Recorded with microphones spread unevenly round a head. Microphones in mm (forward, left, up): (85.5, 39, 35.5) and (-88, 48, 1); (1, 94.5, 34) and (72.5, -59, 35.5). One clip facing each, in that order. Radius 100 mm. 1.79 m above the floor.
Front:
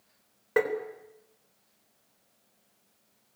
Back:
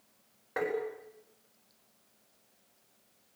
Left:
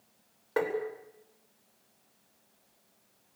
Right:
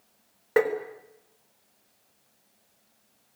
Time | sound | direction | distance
0.6 | tapping | 45° right | 4 m